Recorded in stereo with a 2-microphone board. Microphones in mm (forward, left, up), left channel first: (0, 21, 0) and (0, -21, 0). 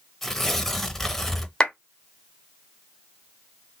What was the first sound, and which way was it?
Tearing paper, 10° left (ahead or behind).